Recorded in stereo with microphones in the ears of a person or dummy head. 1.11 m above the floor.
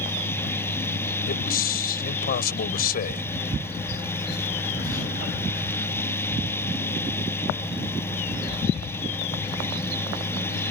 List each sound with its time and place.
0.0 s a fan: 10° left (ahead or behind)
1.3 s a man speaking: 45° left (ahead or behind)